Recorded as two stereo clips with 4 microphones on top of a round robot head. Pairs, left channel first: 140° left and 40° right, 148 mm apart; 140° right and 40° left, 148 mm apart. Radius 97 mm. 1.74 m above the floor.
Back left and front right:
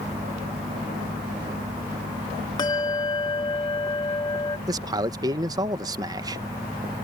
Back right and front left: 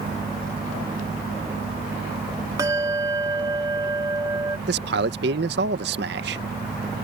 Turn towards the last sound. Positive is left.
turn(degrees=30)